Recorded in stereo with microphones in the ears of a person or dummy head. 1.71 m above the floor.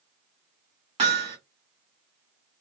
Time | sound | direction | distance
1.0 | hammering | 35° right (ahead or behind) | 1.9 m